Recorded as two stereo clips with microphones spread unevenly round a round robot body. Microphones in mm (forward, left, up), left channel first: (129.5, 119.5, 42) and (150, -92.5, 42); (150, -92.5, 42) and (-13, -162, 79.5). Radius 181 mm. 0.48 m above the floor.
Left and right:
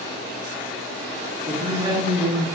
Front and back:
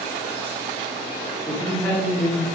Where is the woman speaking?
30° right, 0.8 m.